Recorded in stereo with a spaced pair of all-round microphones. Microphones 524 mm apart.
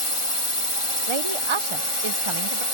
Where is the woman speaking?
65° right (ahead or behind).